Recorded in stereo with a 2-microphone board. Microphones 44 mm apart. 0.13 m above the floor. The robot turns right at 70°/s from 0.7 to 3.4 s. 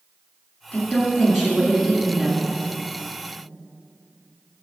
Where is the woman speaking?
145° left, 1.9 m; by 2.5 s 95° right, 1.9 m.